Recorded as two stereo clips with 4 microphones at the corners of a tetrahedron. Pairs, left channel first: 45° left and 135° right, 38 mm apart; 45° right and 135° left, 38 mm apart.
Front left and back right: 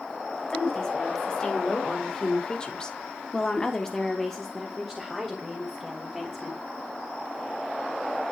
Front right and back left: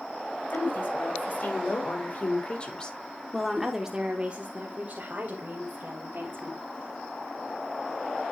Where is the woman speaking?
25° right, 3 m; by 6.6 s 135° left, 3 m.